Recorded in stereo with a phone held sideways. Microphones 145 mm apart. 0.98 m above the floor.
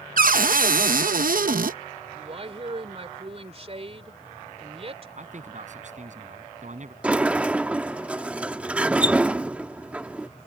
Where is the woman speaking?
45° right (ahead or behind).